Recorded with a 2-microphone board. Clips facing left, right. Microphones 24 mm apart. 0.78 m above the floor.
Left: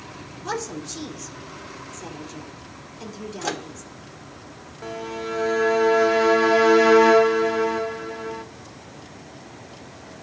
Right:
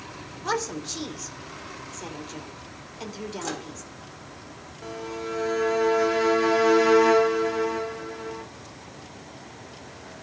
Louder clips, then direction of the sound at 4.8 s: Left 3 dB; 20° left (ahead or behind).